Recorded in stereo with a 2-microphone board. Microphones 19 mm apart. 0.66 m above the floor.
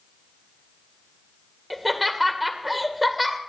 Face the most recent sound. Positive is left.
turn(degrees=5)  # may be behind; listen again after turning